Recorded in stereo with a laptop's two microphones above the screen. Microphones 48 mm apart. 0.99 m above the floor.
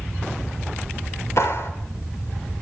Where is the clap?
60° left (ahead or behind), 3.5 m.